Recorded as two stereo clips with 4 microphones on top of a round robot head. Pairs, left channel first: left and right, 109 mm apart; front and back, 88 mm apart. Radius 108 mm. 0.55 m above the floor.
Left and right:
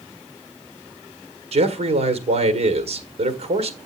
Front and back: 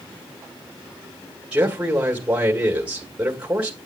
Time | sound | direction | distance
1.5 | a man speaking | 100° right | 1.7 m